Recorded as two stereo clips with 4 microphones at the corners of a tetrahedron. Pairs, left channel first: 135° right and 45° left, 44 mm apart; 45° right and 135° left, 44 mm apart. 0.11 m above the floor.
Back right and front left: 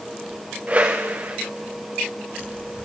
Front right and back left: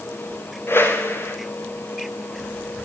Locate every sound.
0.7 s a whoosh: 10° right, 3 m